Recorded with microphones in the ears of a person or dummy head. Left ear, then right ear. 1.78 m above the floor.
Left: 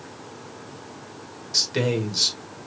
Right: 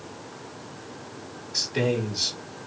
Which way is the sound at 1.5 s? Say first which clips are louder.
Left 3 dB; 55° left (ahead or behind).